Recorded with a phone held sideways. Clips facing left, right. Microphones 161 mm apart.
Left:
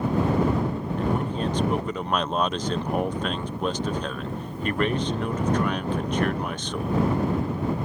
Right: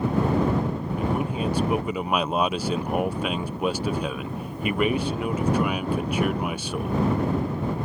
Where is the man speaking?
10° right (ahead or behind).